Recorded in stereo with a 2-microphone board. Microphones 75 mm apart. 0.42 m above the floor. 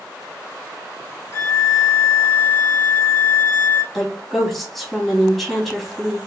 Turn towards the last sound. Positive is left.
turn(degrees=0)  # may be behind; listen again after turning